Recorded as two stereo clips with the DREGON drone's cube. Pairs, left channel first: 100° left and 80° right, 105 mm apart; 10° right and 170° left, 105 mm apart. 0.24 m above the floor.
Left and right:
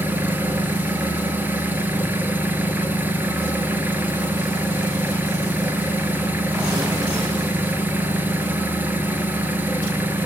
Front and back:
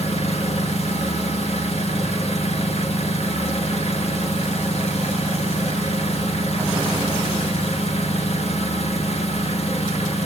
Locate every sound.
0.0 s an engine running: 5° right, 0.8 m